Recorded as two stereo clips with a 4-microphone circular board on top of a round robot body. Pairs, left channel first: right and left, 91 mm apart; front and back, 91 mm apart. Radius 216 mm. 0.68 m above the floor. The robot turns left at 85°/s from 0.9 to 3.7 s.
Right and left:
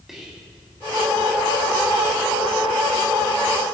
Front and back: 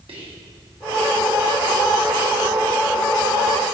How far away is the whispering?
About 2 m.